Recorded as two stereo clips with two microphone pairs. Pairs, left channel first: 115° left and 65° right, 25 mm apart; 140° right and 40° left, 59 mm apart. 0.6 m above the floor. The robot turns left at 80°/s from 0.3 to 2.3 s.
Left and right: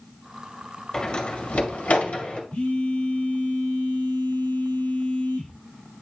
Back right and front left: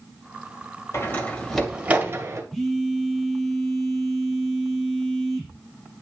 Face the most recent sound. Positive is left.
turn(degrees=130)